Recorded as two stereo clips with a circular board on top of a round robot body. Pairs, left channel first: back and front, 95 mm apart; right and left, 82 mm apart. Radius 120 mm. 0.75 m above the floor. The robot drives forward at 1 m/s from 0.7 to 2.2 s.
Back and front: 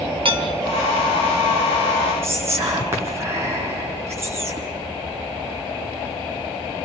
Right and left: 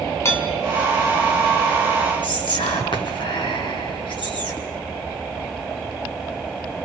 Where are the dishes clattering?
30° right, 2 m.